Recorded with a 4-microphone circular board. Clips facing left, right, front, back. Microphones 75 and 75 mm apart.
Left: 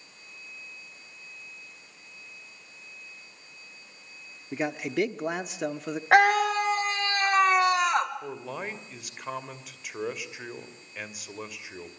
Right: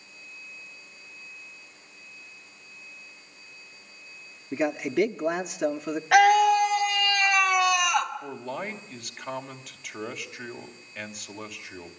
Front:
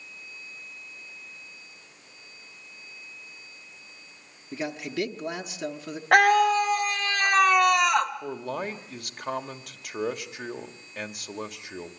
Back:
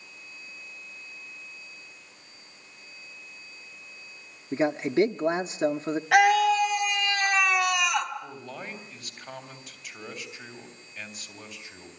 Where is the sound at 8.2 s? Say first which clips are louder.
Right 2 dB, front 8 dB; 5° left, 2.5 m.